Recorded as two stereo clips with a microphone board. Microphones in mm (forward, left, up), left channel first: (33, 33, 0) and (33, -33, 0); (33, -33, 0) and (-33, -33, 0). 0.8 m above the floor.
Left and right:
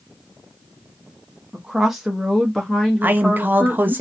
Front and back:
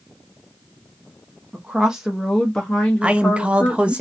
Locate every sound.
1.5 s a woman speaking: 155° right, 1.0 m; by 4.0 s 30° left, 1.3 m
3.0 s a man speaking: 120° right, 0.6 m